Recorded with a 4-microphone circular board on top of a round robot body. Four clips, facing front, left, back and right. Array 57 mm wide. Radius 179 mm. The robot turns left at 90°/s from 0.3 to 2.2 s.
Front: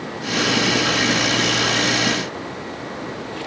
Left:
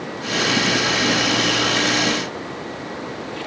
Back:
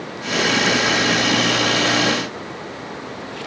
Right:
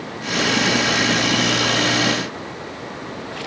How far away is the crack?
I don't hear a crack.